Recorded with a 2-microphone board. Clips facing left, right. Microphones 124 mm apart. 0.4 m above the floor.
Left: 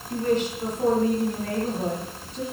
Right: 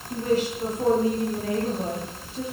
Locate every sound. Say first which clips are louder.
0.1 s a woman speaking: even; 5° right (ahead or behind), 8.5 m